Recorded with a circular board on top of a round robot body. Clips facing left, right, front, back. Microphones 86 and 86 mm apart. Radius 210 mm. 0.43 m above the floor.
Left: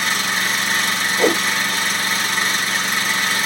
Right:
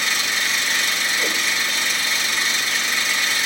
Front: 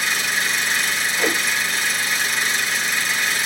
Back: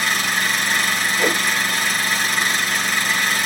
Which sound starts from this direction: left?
A whoosh, at 1.2 s.